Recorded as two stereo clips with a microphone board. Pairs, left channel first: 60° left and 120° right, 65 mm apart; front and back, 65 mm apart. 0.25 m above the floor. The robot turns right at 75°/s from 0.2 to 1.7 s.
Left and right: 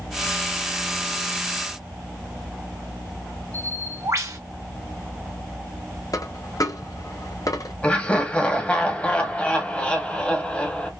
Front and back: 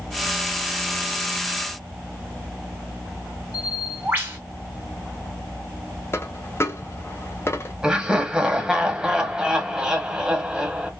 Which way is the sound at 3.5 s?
125° right.